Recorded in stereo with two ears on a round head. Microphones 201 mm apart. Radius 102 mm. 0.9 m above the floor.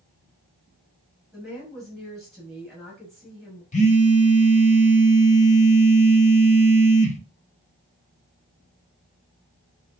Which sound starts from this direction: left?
A phone buzzing, at 3.7 s.